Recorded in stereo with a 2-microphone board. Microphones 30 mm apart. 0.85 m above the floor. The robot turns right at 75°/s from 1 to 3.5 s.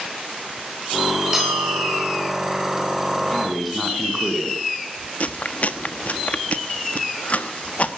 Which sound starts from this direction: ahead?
A bell, at 1.3 s.